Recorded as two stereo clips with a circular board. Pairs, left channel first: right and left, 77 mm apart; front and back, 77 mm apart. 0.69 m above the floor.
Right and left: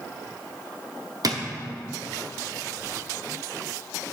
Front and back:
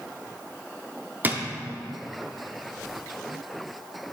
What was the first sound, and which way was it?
A drawer, 115° left.